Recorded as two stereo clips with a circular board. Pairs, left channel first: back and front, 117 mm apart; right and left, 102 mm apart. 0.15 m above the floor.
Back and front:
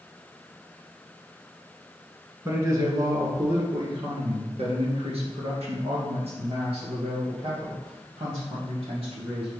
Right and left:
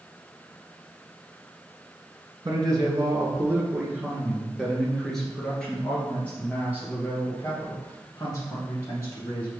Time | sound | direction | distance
2.5 | a man speaking | 55° left | 2 m